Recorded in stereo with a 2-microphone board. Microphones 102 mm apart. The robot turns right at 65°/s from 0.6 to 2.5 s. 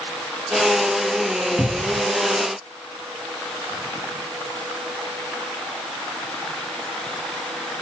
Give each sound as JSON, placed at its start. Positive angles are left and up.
{"t": 1.6, "sound": "a cupboard door", "side_deg": -5, "distance_m": 1.4}